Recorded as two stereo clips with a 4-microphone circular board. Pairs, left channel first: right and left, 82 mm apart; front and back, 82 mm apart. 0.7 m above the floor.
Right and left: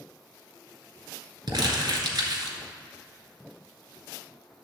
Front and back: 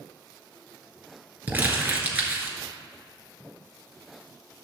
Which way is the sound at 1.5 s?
110° left.